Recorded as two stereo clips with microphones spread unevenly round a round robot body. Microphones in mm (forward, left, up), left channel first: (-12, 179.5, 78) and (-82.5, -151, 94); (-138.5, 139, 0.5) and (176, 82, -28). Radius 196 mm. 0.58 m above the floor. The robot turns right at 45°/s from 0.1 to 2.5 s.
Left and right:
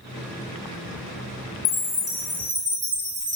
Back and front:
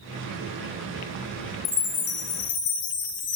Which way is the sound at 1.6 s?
140° left.